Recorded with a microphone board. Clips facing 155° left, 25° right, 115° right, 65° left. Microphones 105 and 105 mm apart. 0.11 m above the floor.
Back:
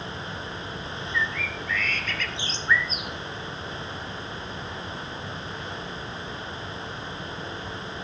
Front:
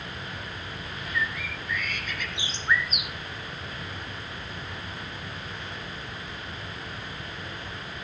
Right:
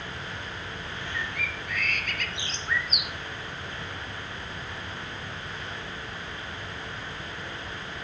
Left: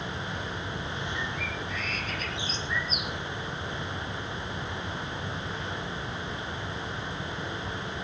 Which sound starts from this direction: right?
A bird, at 1.1 s.